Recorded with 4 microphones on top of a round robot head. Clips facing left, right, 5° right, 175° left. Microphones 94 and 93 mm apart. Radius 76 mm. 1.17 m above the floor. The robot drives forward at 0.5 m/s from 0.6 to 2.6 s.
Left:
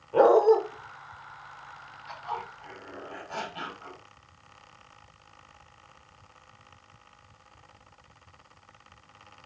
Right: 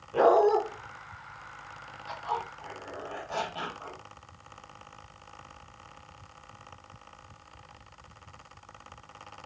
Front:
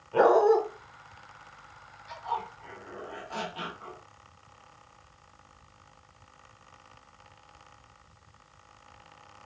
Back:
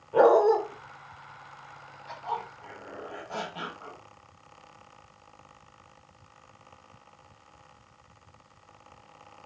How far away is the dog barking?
About 1.1 m.